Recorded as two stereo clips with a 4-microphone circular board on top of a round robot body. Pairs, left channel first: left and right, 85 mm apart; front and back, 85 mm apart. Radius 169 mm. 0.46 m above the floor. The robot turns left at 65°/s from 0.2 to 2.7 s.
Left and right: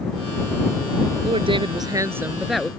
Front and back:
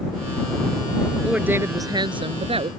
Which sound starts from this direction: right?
A woman speaking, at 1.2 s.